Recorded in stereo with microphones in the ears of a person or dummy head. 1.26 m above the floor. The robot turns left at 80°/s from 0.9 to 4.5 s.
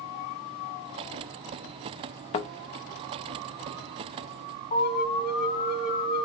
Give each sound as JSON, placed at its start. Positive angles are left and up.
{"t": 2.3, "sound": "a thud", "side_deg": 30, "distance_m": 0.7}
{"t": 4.7, "sound": "an alarm", "side_deg": 35, "distance_m": 1.9}